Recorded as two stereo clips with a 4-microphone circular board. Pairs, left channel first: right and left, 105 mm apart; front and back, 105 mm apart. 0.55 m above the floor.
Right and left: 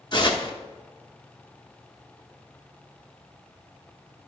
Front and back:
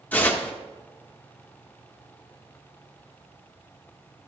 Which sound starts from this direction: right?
Tearing paper, at 0.1 s.